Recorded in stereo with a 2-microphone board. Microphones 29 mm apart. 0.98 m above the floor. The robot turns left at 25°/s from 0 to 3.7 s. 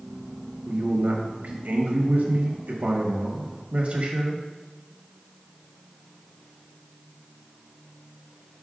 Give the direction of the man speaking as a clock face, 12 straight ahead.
2 o'clock.